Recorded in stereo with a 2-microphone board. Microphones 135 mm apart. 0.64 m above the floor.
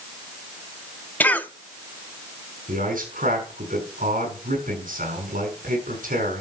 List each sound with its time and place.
1.2 s a cough: 10° left (ahead or behind), 0.9 m
2.7 s a man speaking: 75° right (ahead or behind), 6 m